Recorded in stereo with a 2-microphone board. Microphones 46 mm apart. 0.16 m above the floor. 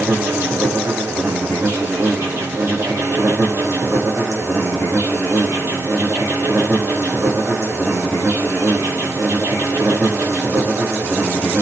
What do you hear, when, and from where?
0.0 s an insect: 70° right (ahead or behind), 9 m